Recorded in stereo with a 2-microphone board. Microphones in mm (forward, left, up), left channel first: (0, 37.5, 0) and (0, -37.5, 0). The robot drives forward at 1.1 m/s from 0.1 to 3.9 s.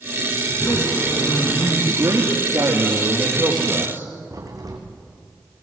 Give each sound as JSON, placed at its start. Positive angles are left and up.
{"t": 0.5, "sound": "a zipper", "side_deg": 55, "distance_m": 6.5}
{"t": 1.9, "sound": "a man speaking", "side_deg": -50, "distance_m": 3.0}
{"t": 4.3, "sound": "a crack", "side_deg": -50, "distance_m": 3.5}